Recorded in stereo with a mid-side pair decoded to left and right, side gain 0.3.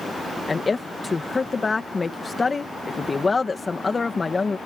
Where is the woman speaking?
35° left.